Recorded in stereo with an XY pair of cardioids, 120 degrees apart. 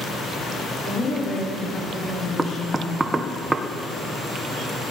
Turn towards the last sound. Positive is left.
turn(degrees=-20)